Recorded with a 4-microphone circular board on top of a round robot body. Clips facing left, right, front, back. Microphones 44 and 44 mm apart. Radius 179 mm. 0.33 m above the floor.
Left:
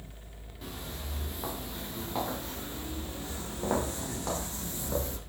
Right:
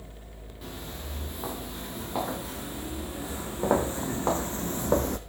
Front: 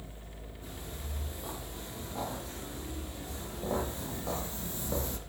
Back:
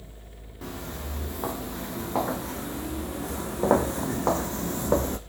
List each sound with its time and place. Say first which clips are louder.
0.6 s footsteps: right 1 dB, back 10 dB; straight behind, 5 m; by 5.2 s 130° right, 1.6 m